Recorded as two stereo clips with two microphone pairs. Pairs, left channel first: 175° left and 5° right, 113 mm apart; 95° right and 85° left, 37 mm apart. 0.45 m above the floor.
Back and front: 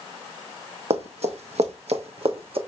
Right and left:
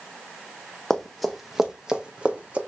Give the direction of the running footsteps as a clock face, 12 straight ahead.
1 o'clock.